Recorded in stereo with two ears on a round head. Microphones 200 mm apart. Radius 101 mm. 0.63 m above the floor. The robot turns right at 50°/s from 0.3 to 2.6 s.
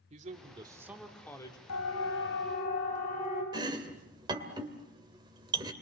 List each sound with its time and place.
0.1 s a man speaking: 40° right, 2.0 m; by 1.6 s 25° left, 2.0 m
1.7 s a siren: 75° left (ahead or behind), 4 m; by 3.4 s 35° left (ahead or behind), 6.5 m
3.5 s chopping: 20° right (ahead or behind), 2 m